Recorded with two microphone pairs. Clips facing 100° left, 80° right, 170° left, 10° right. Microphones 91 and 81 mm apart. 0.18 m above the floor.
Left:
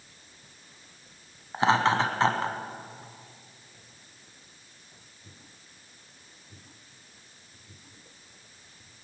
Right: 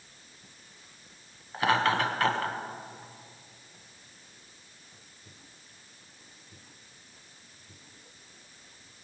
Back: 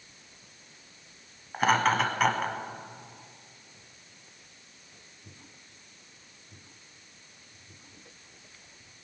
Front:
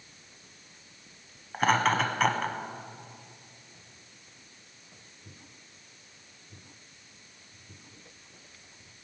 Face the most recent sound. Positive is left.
turn(degrees=85)